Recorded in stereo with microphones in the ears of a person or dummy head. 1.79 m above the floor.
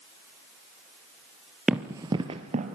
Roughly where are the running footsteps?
Centre.